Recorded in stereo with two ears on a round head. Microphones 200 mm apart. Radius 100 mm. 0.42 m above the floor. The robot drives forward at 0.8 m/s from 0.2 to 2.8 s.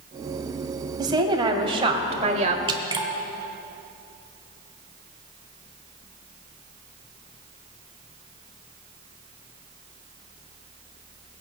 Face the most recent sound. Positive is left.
turn(degrees=-20)  # may be behind; listen again after turning